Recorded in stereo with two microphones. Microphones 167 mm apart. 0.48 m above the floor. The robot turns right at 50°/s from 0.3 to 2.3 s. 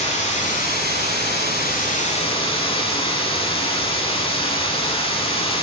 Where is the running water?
45° left, 0.8 m; by 5.6 s 145° left, 0.8 m.